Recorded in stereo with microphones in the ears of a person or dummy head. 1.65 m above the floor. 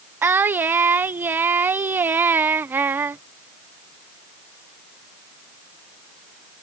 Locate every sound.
0.2 s singing: 15° right (ahead or behind)